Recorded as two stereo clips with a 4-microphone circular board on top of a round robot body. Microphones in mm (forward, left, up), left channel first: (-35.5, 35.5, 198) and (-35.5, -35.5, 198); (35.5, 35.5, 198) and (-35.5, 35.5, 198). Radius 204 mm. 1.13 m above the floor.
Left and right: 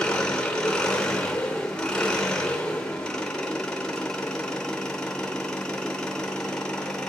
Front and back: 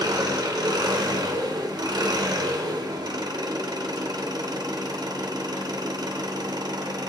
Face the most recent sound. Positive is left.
turn(degrees=170)